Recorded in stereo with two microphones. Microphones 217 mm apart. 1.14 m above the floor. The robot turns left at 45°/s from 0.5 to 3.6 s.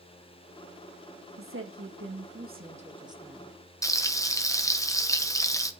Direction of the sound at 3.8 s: 15° left (ahead or behind).